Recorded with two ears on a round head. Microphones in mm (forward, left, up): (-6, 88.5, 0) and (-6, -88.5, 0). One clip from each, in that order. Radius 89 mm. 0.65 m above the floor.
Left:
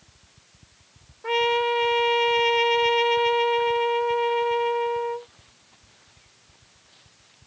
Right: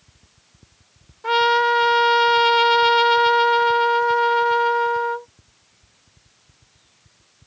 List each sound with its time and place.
1.2 s a trumpet: 45° right (ahead or behind)